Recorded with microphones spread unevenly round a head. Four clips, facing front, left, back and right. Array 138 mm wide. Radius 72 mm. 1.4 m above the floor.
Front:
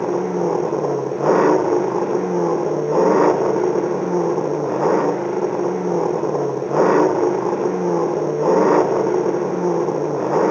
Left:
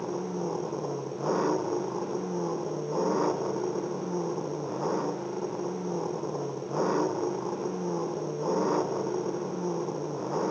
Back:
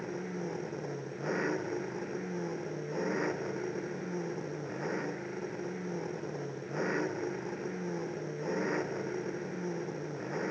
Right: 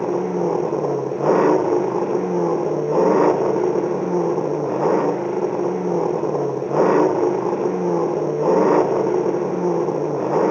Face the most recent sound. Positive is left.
turn(degrees=-35)